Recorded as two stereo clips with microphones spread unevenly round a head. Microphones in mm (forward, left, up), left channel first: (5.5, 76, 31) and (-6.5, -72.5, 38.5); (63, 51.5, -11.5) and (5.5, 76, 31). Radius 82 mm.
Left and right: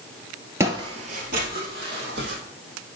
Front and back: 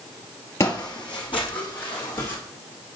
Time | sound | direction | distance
0.6 | footsteps | 110° right | 0.9 m